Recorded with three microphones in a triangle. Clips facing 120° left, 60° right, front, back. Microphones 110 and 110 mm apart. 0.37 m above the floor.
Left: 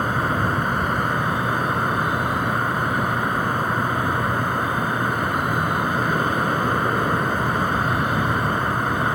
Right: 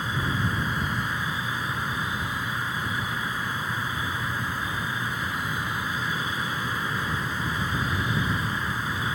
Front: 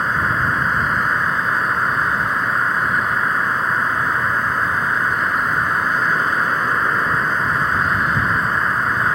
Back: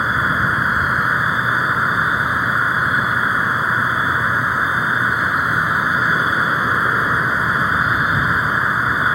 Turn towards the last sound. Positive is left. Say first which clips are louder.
# left 7 dB, back 1 dB
turn(degrees=95)